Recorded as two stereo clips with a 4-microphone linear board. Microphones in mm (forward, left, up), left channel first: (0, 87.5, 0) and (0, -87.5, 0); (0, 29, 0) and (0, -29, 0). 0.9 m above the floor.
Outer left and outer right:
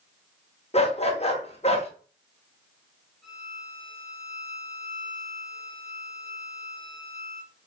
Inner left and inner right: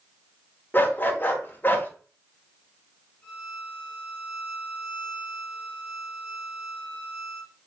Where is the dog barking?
35° left (ahead or behind), 0.9 m.